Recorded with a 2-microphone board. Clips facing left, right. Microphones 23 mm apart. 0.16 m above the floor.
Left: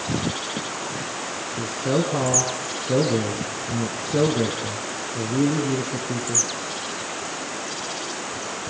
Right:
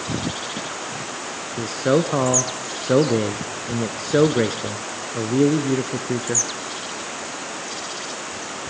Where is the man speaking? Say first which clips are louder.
Right 4 dB; 50° right (ahead or behind), 1.6 m.